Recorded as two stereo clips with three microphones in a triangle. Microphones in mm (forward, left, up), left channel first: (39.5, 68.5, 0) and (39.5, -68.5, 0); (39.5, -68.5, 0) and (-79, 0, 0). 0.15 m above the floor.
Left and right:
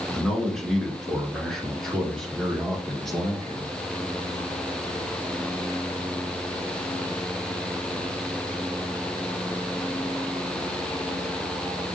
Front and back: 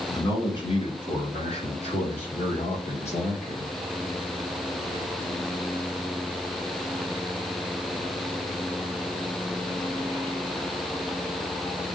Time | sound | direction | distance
0.1 | a man speaking | 5° left | 1.9 m